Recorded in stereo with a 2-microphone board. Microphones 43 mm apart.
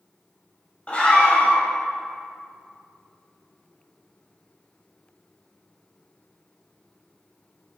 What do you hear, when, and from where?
0.9 s a scream: 30° left (ahead or behind), 1.6 m